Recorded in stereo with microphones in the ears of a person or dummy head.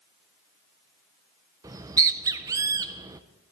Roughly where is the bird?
Centre.